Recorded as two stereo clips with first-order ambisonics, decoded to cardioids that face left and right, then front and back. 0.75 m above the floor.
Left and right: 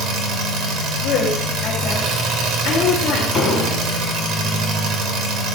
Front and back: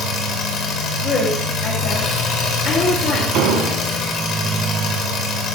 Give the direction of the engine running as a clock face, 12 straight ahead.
2 o'clock.